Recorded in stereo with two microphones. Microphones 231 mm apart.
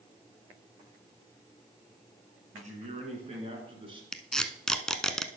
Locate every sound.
2.5 s a man speaking: 30° right (ahead or behind), 2.5 m; by 4.0 s 20° right (ahead or behind), 3 m
4.1 s tape being pulled: 5° left (ahead or behind), 0.6 m